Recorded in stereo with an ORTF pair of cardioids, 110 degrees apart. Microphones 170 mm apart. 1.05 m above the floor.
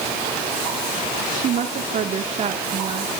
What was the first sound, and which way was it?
A woman speaking, 55° right.